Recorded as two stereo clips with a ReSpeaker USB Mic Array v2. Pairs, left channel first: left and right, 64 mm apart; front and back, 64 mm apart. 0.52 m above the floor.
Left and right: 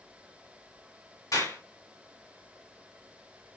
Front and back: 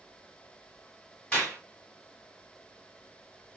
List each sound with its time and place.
1.3 s a clap: 75° left, 2.5 m